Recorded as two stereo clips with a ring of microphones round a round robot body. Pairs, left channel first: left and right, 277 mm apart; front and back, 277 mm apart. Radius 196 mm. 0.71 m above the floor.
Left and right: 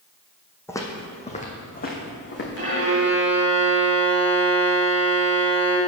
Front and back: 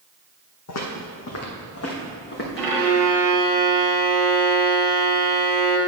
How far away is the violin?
About 1.7 m.